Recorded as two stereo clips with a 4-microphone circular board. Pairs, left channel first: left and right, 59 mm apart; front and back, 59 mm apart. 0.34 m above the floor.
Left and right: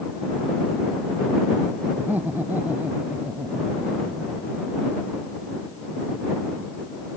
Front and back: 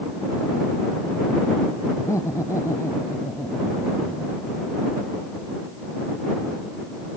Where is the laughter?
30° right.